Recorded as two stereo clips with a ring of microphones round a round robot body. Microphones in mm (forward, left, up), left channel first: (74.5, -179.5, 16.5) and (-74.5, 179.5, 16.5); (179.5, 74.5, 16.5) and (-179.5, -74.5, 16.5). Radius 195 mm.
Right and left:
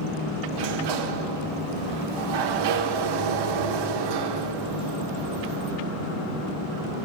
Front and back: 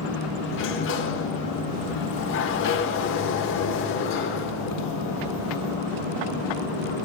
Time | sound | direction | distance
0.5 | a sliding door | 85° left | 0.9 m